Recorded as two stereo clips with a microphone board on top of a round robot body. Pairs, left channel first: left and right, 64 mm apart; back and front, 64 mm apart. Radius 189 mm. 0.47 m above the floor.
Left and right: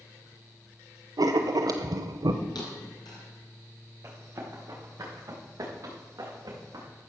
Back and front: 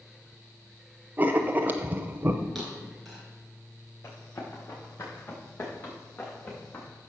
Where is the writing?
65° right, 0.7 m.